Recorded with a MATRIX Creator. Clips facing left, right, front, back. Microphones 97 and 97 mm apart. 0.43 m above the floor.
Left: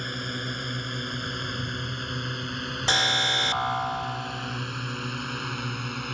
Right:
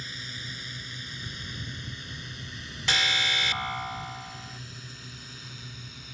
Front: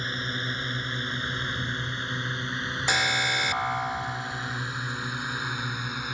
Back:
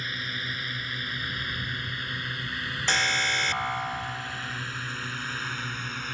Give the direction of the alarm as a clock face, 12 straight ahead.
10 o'clock.